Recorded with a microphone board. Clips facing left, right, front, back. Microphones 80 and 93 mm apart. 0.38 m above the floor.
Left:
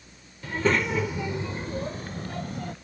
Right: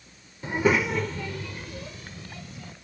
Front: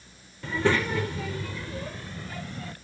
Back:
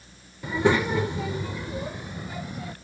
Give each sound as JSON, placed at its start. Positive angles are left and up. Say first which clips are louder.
{"t": 0.4, "sound": "a child speaking", "louder": "right 2 dB, back 3 dB", "azimuth_deg": -120}